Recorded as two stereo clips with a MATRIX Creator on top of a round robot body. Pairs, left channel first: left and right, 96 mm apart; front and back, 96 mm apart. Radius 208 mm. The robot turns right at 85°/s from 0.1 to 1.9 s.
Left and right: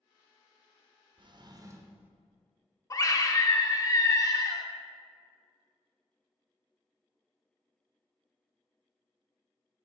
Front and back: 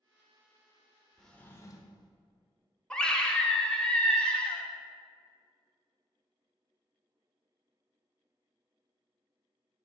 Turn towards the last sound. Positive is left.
turn(degrees=75)